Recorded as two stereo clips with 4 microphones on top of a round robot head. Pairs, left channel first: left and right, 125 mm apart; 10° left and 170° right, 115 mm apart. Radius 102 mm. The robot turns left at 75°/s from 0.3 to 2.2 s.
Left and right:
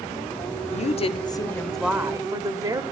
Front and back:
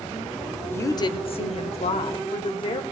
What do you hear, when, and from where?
0.7 s a woman speaking: 80° left, 1.4 m; by 2.8 s 30° right, 1.4 m